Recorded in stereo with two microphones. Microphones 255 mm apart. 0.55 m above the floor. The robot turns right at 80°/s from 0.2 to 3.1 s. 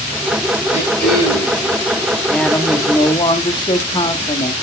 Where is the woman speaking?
Centre (ahead or behind), 0.6 m; by 4.5 s 20° left (ahead or behind), 0.6 m.